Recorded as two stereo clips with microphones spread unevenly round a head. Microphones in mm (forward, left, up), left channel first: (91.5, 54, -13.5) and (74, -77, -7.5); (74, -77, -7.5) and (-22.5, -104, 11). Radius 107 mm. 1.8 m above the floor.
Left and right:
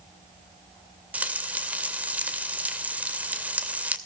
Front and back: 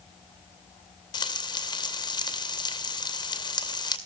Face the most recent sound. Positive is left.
turn(degrees=-25)